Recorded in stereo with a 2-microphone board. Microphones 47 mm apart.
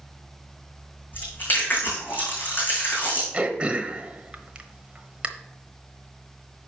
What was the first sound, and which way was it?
Chewing, 40° left (ahead or behind).